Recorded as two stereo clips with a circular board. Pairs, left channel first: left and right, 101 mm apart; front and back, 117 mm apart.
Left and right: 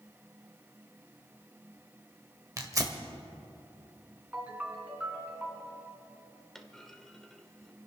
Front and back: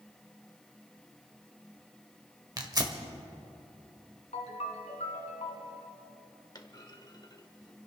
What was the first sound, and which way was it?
Tearing paper, 135° right.